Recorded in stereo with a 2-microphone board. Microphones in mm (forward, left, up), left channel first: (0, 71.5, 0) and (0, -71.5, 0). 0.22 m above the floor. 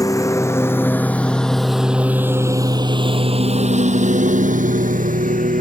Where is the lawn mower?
25° left (ahead or behind); by 5.6 s 85° right.